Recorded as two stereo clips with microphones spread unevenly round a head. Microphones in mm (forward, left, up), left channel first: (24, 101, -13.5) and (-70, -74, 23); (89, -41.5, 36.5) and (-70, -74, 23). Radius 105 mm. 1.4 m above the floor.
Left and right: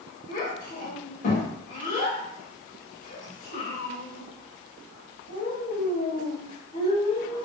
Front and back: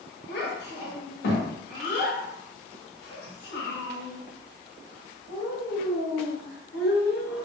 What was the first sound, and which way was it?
A child speaking, 5° left.